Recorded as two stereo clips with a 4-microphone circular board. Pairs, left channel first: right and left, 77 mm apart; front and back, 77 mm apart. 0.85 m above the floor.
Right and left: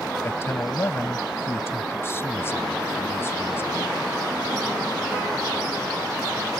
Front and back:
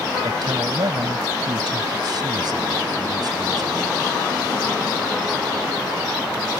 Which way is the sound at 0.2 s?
150° right.